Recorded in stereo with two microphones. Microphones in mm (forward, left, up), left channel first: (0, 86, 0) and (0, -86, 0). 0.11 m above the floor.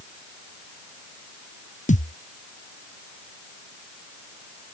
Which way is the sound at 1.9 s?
45° left (ahead or behind).